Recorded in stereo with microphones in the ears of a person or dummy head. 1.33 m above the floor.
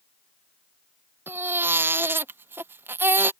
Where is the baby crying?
5° right (ahead or behind).